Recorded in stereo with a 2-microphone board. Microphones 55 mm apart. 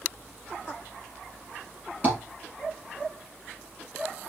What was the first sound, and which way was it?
Tapping, 40° right (ahead or behind).